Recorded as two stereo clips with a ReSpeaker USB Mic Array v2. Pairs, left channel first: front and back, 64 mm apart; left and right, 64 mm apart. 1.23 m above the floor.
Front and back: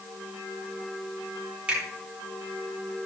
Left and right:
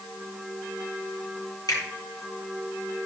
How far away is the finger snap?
About 3.5 m.